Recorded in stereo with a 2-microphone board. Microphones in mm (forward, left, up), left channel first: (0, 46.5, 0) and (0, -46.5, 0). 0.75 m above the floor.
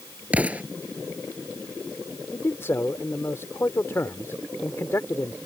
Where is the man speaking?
30° left (ahead or behind).